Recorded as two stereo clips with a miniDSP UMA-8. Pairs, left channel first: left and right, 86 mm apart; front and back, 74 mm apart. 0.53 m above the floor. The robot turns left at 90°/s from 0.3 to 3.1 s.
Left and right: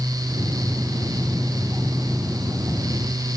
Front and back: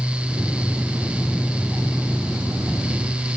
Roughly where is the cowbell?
No cowbell in this recording.